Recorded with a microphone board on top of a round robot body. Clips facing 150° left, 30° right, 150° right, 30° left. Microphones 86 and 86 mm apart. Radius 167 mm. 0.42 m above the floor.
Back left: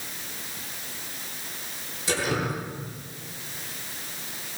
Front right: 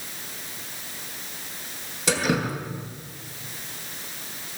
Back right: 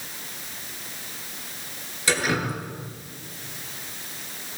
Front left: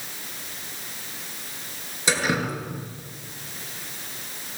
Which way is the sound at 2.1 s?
40° right.